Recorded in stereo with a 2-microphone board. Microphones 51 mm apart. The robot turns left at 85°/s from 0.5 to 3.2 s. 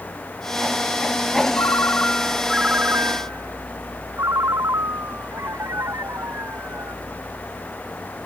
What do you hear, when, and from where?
1.6 s a ringtone: 70° left; by 7.0 s 70° right